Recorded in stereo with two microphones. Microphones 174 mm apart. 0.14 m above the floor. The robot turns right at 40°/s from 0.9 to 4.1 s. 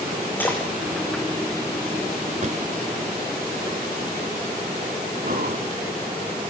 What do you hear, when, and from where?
0.4 s a splash: 10° left (ahead or behind), 3 m
2.4 s a drawer: 50° right (ahead or behind), 0.5 m; by 2.6 s 45° right (ahead or behind), 0.5 m
5.2 s breathing: 55° right (ahead or behind), 2.5 m